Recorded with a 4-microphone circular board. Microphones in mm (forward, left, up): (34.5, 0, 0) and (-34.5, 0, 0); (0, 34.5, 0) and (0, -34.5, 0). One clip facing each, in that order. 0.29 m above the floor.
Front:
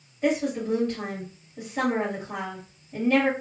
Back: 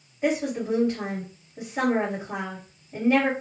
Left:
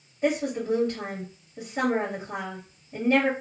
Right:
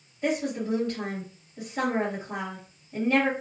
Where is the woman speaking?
120° left, 1.2 m.